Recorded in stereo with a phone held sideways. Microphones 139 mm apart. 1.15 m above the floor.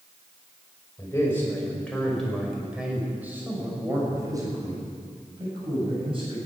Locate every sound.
1.0 s a man speaking: 20° left (ahead or behind), 4.5 m; by 6.4 s 40° right (ahead or behind), 7 m